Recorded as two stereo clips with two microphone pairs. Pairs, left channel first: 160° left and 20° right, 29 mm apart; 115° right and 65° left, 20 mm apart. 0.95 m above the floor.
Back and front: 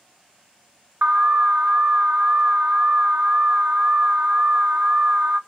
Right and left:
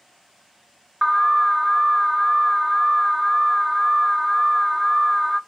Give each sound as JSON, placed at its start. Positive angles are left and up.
{"t": 1.0, "sound": "an alarm", "azimuth_deg": -25, "distance_m": 0.8}